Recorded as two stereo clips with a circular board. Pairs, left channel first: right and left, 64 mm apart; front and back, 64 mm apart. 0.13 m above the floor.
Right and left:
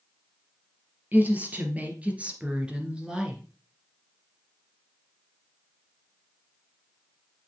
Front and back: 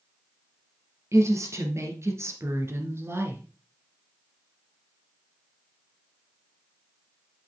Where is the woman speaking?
150° left, 2.5 m; by 3.4 s 170° left, 1.7 m.